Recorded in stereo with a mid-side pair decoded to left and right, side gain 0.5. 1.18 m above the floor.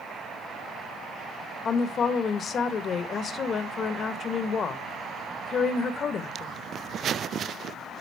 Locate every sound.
1.6 s a woman speaking: 50° left, 1.3 m